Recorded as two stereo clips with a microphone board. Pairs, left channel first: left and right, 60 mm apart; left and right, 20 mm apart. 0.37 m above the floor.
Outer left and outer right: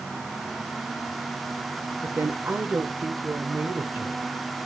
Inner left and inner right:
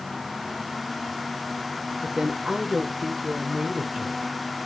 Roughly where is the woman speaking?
Right.